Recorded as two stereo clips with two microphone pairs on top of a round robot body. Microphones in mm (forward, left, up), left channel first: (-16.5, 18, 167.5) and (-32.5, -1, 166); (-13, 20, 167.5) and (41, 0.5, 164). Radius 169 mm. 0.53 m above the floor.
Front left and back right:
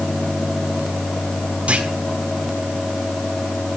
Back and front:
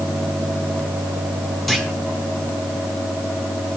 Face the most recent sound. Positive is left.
turn(degrees=-110)